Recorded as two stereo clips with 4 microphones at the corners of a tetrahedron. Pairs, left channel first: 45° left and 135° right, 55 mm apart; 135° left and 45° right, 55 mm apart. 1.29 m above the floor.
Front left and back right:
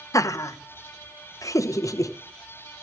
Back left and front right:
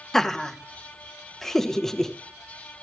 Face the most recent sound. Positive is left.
turn(degrees=55)